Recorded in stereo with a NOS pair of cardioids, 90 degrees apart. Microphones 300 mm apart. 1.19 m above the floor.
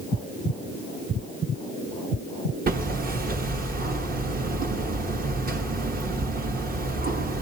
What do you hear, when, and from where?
2.7 s hammering: 30° right, 1.3 m